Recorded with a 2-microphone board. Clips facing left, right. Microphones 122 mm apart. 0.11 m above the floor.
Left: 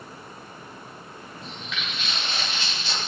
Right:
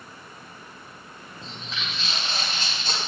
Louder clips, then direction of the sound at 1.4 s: Even; 30° right (ahead or behind).